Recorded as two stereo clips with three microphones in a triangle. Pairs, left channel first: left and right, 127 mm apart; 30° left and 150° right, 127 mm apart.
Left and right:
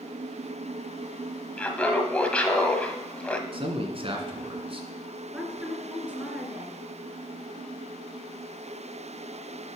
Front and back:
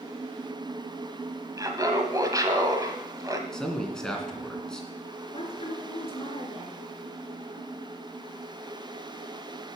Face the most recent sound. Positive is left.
turn(degrees=-10)